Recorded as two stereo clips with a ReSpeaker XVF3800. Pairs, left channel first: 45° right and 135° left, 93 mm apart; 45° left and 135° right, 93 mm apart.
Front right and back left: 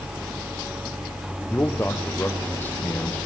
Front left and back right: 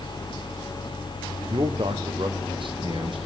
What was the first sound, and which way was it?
A man speaking, 110° right.